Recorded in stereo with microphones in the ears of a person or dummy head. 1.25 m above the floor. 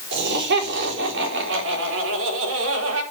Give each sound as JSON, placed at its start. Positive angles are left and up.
{"t": 0.1, "sound": "laughter", "side_deg": -65, "distance_m": 4.0}